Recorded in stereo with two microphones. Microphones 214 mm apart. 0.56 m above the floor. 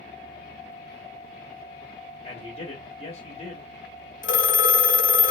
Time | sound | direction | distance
2.2 | a man speaking | 30° left (ahead or behind) | 1.0 m
4.2 | a phone ringing | 60° left (ahead or behind) | 0.5 m